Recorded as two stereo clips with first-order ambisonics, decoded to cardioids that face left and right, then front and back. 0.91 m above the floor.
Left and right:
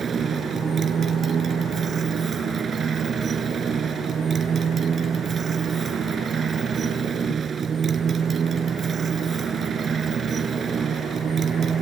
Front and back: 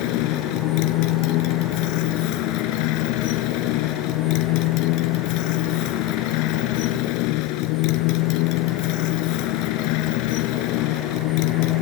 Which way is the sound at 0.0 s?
20° right.